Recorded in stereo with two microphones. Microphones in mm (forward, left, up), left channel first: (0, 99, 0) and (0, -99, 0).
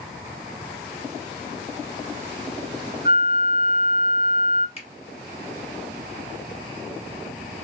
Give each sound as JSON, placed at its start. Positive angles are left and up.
{"t": 3.0, "sound": "a flute", "side_deg": -25, "distance_m": 1.0}
{"t": 4.8, "sound": "a finger snap", "side_deg": 30, "distance_m": 1.7}